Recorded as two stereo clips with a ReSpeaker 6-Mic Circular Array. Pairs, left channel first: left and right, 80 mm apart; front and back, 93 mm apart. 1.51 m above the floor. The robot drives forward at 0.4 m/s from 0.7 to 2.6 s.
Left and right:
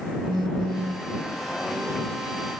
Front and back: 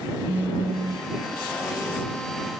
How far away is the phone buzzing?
About 1.3 m.